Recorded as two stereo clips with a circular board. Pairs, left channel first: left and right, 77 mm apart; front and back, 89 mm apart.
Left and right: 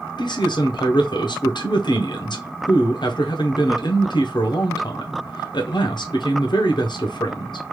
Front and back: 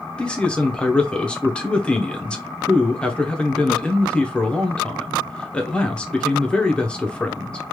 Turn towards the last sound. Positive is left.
turn(degrees=80)